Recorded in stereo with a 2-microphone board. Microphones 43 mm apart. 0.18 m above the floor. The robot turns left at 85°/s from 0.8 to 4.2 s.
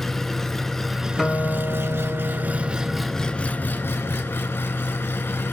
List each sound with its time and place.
0.0 s an engine running: 10° left, 0.8 m; by 5.5 s 80° left, 0.8 m
1.2 s a guitar: straight behind, 1.7 m; by 3.4 s 10° right, 1.7 m